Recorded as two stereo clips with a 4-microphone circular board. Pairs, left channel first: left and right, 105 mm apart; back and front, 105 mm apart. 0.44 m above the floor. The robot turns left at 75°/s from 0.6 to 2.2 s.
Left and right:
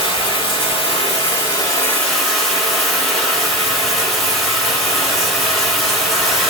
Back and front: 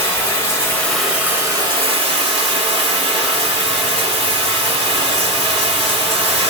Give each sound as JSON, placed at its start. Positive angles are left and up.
{"t": 0.0, "sound": "running water", "azimuth_deg": 120, "distance_m": 1.3}